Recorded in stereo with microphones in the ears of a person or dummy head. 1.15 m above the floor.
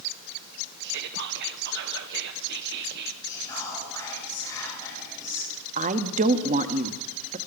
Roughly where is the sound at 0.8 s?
Right.